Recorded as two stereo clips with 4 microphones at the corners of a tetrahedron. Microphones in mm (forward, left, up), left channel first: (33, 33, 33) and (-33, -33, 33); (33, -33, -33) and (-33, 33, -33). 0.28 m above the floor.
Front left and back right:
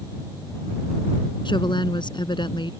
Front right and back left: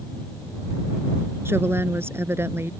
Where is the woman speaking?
75° left.